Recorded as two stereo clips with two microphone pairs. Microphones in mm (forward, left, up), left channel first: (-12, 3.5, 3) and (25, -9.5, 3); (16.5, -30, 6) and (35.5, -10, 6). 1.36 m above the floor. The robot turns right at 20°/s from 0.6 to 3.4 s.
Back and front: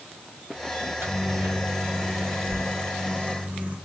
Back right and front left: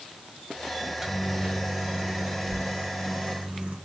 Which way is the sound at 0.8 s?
35° right.